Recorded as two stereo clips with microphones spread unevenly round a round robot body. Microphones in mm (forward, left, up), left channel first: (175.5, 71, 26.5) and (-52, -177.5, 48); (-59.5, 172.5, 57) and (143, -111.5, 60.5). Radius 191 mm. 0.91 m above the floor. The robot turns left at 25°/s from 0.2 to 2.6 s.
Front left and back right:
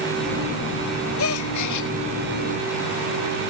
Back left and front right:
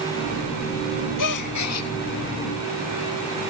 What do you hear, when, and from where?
1.2 s a gasp: 100° left; by 1.9 s 80° left